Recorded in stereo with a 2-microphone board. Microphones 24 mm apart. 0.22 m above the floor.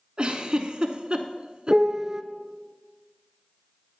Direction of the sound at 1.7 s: 25° right (ahead or behind).